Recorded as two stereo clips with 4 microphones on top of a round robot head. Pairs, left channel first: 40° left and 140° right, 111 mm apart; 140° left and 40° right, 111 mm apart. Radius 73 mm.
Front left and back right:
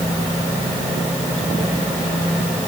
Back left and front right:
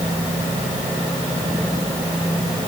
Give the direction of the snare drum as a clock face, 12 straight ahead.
I don't hear a snare drum.